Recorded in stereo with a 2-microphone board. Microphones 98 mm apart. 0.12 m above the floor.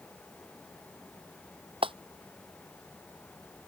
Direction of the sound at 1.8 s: 65° right (ahead or behind).